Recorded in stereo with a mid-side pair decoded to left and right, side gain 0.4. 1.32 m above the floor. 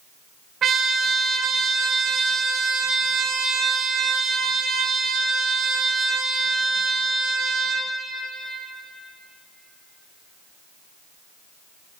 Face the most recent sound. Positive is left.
turn(degrees=-60)